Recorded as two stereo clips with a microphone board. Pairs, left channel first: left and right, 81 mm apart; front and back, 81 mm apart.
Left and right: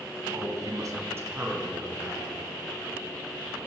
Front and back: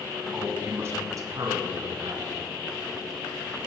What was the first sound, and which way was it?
A man speaking, 110° right.